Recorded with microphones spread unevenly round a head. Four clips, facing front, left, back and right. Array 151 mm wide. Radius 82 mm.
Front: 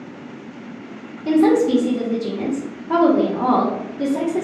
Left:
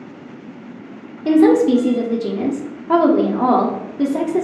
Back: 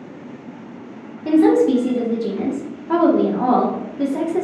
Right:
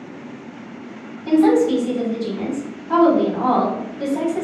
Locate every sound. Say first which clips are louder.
1.2 s a woman speaking: left 3 dB, back 1 dB; 110° left, 0.7 m